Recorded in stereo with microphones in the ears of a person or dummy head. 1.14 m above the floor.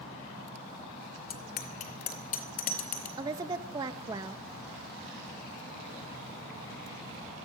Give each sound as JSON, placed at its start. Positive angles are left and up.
{"t": 1.3, "sound": "a bicycle bell", "side_deg": 50, "distance_m": 2.0}
{"t": 3.2, "sound": "a woman speaking", "side_deg": -20, "distance_m": 1.3}